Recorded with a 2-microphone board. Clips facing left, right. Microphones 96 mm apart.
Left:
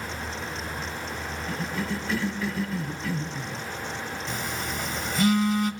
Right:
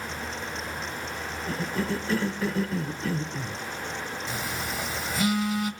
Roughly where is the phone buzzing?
Centre.